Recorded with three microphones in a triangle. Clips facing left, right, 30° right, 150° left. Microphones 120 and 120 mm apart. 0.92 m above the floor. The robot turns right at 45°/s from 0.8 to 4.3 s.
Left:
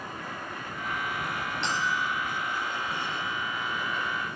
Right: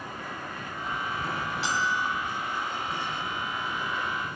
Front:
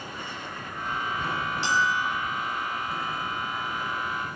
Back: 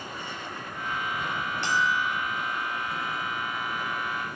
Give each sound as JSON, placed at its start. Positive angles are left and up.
{"t": 1.6, "sound": "a bell", "azimuth_deg": -175, "distance_m": 9.0}